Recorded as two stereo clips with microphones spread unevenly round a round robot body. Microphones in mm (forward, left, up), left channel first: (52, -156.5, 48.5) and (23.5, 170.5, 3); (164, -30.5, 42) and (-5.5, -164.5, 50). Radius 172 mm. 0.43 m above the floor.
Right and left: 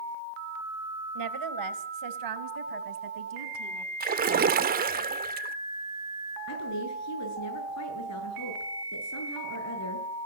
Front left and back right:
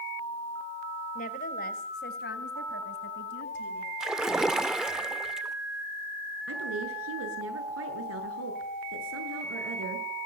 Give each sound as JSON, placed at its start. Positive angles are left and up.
{"t": 1.1, "sound": "a woman speaking", "azimuth_deg": 95, "distance_m": 2.5}
{"t": 4.0, "sound": "a splash", "azimuth_deg": 130, "distance_m": 0.8}
{"t": 6.5, "sound": "a woman speaking", "azimuth_deg": -130, "distance_m": 8.5}